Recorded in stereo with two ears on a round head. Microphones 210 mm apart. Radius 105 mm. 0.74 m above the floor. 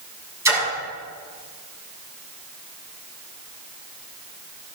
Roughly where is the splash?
Centre.